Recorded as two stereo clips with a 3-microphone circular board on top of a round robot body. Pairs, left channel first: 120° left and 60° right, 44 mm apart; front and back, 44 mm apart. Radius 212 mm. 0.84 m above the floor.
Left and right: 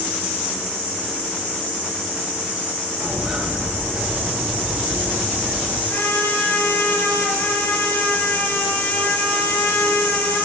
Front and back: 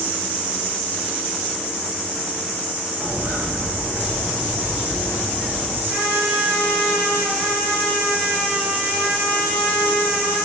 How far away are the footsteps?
About 8 m.